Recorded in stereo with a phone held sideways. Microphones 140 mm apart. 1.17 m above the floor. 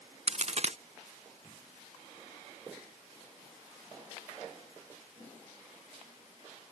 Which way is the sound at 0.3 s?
50° right (ahead or behind).